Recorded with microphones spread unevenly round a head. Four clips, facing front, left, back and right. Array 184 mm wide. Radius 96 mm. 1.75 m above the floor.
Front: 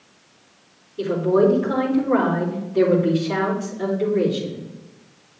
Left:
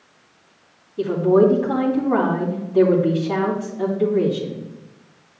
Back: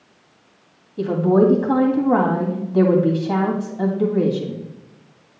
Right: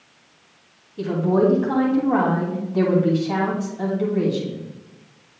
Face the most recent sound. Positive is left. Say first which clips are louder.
# left 4 dB, back 2 dB
turn(degrees=180)